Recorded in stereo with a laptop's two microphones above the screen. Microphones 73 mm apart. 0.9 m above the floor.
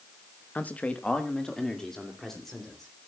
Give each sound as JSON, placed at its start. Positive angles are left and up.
{"t": 0.6, "sound": "a man speaking", "side_deg": 25, "distance_m": 0.9}